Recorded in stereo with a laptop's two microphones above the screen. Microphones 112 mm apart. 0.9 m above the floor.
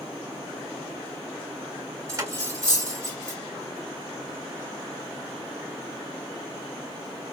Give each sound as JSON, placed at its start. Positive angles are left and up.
{"t": 2.1, "sound": "cutlery clinking", "side_deg": -30, "distance_m": 2.0}